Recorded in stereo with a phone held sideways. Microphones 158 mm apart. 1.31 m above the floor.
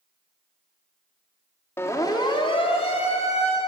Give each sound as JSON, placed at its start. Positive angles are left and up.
{"t": 1.8, "sound": "a siren", "side_deg": 15, "distance_m": 2.5}